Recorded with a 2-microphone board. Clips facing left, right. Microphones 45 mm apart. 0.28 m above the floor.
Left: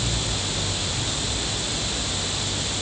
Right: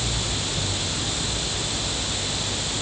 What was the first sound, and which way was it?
Only background noise.